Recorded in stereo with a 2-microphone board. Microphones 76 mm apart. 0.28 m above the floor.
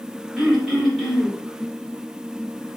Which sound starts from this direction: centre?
Throat clearing, at 0.4 s.